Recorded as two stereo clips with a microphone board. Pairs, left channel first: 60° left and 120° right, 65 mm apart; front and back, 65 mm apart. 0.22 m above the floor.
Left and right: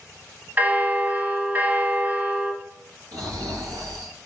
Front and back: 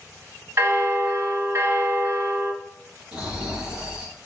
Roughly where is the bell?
Behind.